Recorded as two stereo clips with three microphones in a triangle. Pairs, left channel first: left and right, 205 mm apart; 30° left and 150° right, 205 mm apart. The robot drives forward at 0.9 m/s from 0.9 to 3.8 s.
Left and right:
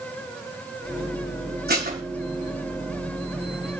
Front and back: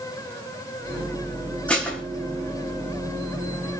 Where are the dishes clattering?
55° right, 5.5 m.